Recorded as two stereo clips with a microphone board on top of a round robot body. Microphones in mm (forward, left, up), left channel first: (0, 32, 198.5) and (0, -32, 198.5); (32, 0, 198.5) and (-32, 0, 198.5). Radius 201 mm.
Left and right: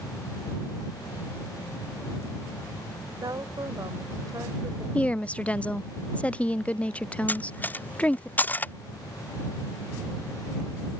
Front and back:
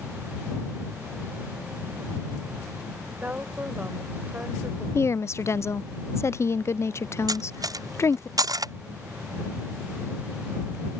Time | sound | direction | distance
3.2 | a woman speaking | 115° right | ?
5.0 | a woman speaking | 25° left | ?
7.3 | cutlery clinking | 155° left | ?